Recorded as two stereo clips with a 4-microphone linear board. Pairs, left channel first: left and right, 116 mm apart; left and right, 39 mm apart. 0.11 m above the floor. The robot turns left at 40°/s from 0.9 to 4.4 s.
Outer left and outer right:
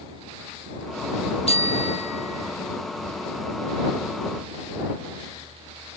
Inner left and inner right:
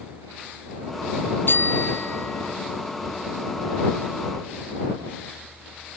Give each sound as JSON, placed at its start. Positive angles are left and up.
{"t": 1.5, "sound": "a bicycle bell", "azimuth_deg": 115}